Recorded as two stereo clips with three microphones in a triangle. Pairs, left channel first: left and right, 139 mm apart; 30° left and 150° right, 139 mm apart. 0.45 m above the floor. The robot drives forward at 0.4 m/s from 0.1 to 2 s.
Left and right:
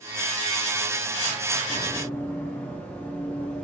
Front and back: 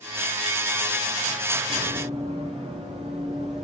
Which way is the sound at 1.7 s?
165° left.